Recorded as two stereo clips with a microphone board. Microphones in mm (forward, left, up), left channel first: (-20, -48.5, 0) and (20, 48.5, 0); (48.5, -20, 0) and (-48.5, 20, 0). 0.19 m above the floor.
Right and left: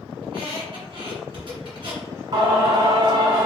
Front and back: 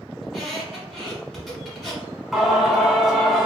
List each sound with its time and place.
0.2 s a squeak: 65° left, 1.6 m
2.3 s singing: 70° left, 0.8 m